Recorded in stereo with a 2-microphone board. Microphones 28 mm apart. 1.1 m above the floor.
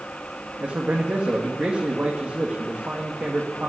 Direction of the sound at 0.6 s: 75° right (ahead or behind).